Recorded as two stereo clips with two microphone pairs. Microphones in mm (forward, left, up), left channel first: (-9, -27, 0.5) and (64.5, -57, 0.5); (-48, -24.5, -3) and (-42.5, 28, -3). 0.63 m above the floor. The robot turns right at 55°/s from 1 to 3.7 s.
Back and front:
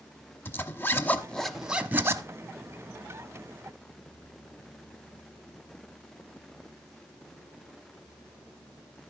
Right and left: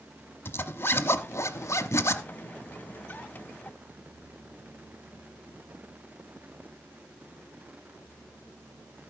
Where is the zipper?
135° right, 0.9 m; by 2.2 s 70° right, 0.9 m.